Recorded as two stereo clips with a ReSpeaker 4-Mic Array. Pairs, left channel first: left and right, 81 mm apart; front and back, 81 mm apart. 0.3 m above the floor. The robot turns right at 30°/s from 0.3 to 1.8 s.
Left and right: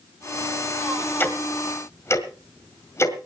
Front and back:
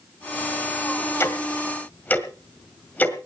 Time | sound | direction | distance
1.2 | ticking | 40° left | 1.8 m